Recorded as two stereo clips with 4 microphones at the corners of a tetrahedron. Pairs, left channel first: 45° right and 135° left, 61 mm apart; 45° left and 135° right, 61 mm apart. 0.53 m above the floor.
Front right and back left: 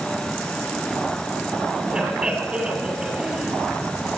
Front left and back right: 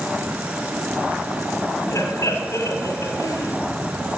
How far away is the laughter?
About 2.0 m.